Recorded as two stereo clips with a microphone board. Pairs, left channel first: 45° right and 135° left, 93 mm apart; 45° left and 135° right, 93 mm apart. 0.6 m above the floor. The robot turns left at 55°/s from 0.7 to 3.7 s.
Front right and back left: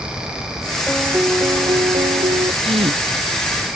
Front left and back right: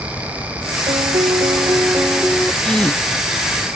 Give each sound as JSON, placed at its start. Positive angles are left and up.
{"t": 0.9, "sound": "a piano", "azimuth_deg": -140}
{"t": 2.6, "sound": "a gasp", "azimuth_deg": 130}